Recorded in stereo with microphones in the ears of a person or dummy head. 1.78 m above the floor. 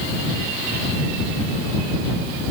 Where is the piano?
No piano in this recording.